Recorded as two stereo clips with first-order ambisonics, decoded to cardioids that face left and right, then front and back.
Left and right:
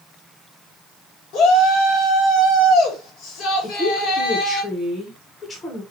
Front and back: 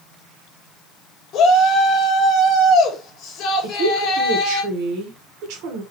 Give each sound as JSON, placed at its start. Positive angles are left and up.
{"t": 1.3, "sound": "a shout", "azimuth_deg": 50, "distance_m": 1.7}
{"t": 3.6, "sound": "a woman speaking", "azimuth_deg": 165, "distance_m": 1.5}